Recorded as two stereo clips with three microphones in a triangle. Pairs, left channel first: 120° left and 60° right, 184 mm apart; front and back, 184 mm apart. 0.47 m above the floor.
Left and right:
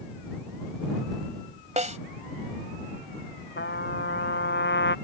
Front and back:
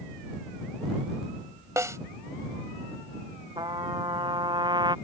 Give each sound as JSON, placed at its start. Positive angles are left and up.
{"t": 1.8, "sound": "a snare drum", "azimuth_deg": -105}
{"t": 3.6, "sound": "a trumpet", "azimuth_deg": 115}